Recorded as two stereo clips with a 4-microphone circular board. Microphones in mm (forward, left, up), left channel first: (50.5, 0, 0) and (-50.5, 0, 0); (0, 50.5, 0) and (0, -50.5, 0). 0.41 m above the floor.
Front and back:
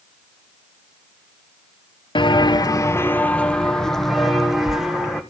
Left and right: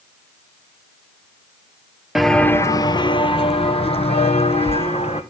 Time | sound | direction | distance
2.1 | footsteps | 5° right | 0.5 m